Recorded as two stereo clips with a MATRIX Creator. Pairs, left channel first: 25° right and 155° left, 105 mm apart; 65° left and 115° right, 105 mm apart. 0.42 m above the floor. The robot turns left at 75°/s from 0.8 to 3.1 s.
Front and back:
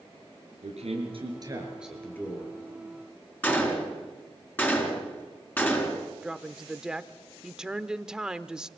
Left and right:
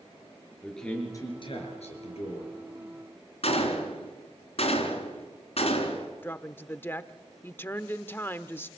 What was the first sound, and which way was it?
A man speaking, 155° left.